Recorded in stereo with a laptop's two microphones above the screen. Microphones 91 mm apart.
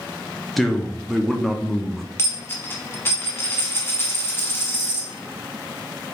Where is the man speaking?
5° left (ahead or behind), 0.5 m.